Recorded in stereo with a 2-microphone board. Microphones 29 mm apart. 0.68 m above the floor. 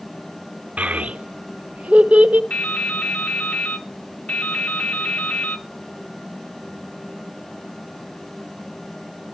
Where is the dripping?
55° left (ahead or behind), 1.0 m.